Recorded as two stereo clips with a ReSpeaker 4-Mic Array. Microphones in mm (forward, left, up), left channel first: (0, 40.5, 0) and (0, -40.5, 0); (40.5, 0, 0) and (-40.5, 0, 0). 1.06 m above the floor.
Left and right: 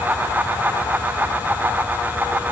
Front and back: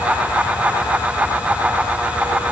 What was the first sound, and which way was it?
Only background noise.